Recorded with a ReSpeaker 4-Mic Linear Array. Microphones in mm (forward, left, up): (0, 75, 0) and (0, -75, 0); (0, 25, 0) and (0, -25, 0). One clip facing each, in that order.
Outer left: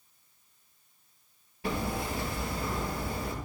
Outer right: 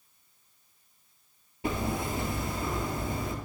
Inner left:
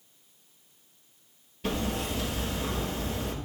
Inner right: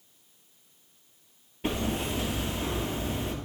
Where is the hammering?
25° right (ahead or behind), 1.3 m.